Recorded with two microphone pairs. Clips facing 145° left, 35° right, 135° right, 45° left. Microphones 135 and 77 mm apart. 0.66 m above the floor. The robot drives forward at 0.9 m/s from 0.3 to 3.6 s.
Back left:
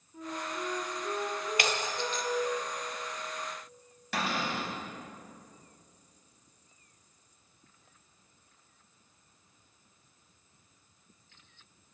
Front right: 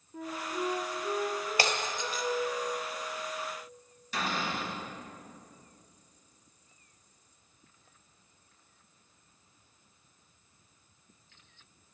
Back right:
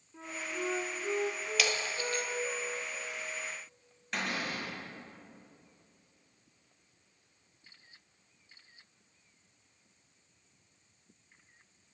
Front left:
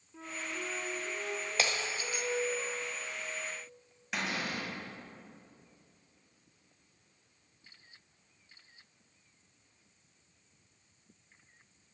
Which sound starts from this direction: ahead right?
A flute, at 0.1 s.